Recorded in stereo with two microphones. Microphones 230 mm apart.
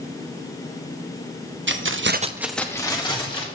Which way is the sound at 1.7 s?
55° right (ahead or behind).